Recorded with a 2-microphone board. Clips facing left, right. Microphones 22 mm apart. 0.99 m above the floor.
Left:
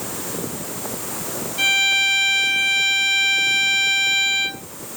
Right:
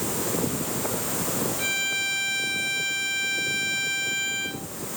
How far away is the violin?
About 3 m.